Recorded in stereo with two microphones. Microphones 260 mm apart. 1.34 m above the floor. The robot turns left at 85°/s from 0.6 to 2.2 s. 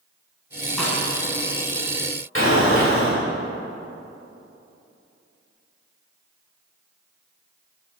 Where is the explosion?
50° left (ahead or behind), 2 m.